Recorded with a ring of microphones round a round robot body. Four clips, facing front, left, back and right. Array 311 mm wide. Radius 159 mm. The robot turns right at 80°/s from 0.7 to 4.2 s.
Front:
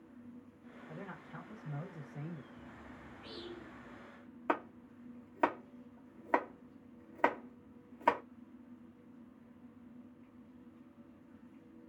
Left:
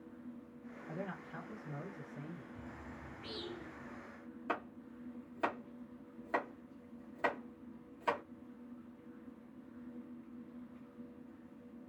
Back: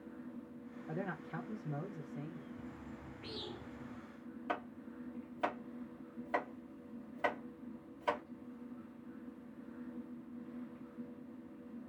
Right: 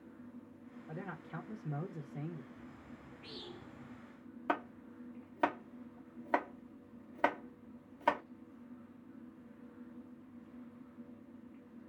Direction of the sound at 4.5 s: 30° right.